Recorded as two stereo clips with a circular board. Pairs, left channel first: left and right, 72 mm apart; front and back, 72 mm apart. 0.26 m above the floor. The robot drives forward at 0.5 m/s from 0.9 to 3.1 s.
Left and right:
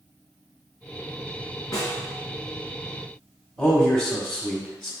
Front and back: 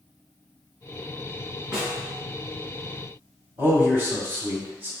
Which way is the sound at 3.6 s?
165° left.